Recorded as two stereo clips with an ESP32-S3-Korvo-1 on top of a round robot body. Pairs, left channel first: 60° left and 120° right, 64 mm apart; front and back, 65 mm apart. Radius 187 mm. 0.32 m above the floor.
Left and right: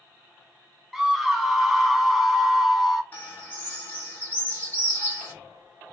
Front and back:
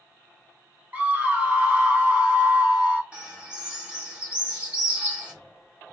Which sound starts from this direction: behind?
A scream, at 0.9 s.